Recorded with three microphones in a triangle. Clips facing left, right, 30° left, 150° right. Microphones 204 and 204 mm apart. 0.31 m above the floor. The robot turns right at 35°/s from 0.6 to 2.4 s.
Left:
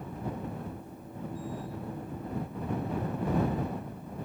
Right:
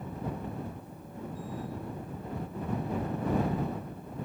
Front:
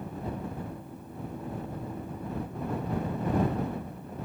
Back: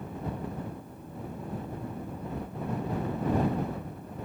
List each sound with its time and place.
Only background noise.